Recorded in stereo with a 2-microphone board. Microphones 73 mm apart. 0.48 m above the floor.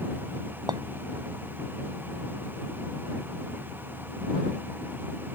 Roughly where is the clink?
Right.